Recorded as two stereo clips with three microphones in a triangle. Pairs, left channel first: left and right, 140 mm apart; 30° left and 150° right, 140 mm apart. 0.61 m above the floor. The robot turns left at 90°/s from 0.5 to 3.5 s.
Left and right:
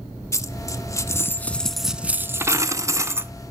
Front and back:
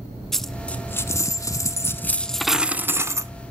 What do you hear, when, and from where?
0.3 s a dropped coin: 115° left, 0.5 m; by 3.3 s 140° right, 0.5 m